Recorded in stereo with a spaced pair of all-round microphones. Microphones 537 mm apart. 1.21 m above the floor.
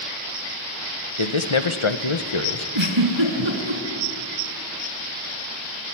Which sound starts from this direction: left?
A man speaking, at 1.2 s.